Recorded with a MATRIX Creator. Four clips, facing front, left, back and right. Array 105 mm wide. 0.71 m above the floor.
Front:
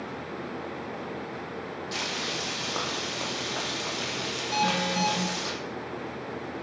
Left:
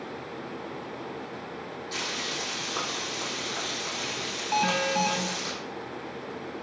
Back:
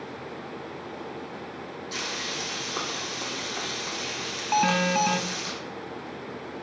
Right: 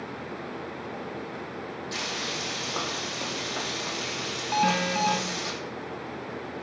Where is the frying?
20° right, 6 m.